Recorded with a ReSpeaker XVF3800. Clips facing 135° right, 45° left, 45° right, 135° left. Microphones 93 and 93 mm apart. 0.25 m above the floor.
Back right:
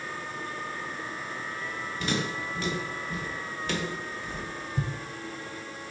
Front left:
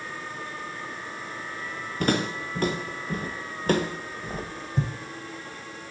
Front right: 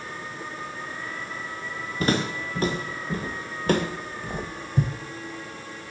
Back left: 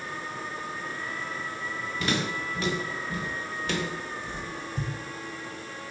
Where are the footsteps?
5° left, 2.5 m; by 4.9 s 20° right, 0.8 m.